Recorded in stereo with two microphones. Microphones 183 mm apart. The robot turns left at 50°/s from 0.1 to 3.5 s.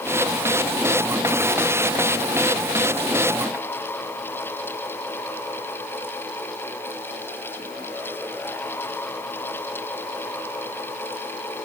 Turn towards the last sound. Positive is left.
No sound to turn to.